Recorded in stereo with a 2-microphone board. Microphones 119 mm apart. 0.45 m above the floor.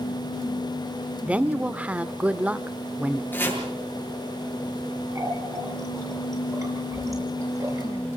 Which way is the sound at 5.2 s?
25° right (ahead or behind).